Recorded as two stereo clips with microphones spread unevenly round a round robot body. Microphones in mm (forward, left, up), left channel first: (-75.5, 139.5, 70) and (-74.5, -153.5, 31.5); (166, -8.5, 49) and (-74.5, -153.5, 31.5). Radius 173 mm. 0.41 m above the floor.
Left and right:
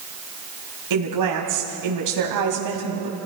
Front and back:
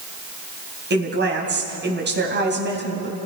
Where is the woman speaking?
95° right, 3 m.